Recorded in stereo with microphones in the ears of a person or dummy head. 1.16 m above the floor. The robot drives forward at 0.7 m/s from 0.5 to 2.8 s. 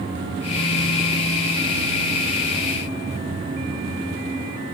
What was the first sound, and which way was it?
Only background noise.